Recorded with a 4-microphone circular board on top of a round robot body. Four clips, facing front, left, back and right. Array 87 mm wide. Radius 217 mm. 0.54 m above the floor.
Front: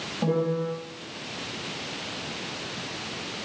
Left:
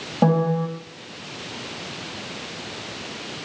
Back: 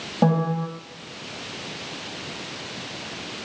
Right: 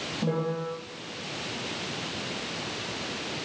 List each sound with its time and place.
0.2 s a piano: 125° left, 10 m